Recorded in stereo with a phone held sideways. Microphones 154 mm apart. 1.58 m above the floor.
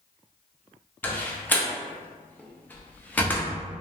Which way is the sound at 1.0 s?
10° left (ahead or behind).